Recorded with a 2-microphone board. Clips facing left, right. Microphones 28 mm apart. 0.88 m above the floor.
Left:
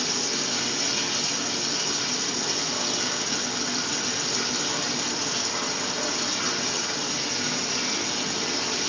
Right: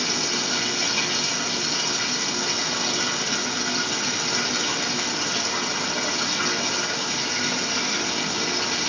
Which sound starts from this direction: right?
Running water, at 0.0 s.